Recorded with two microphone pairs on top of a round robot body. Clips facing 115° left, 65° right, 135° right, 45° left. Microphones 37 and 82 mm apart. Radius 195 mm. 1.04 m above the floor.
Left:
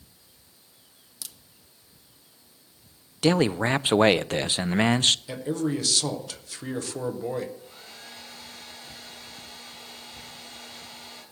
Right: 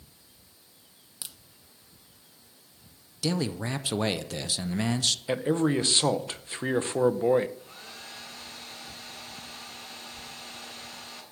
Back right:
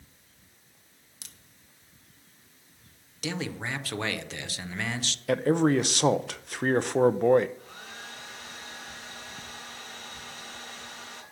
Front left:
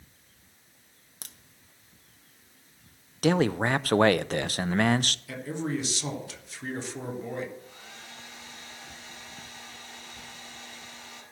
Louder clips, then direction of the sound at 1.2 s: Even, front left 4 dB; straight ahead.